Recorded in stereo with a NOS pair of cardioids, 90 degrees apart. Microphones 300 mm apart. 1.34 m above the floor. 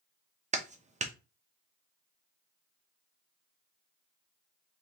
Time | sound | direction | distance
0.5 | a clap | 25° right | 0.9 m